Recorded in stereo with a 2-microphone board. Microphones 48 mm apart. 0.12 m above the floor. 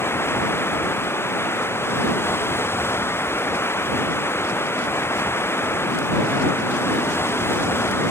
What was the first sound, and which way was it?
Running water, 60° left (ahead or behind).